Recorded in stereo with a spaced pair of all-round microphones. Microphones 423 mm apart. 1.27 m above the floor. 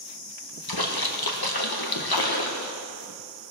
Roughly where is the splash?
Left.